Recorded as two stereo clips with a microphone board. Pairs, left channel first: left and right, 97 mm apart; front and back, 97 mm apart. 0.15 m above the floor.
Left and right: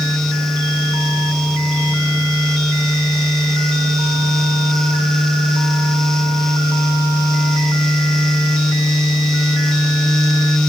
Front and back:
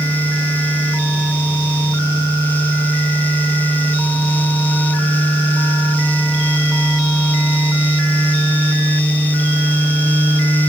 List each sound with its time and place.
Only background noise.